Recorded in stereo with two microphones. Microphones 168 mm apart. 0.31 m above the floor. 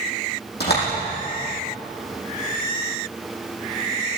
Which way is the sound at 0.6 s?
85° left.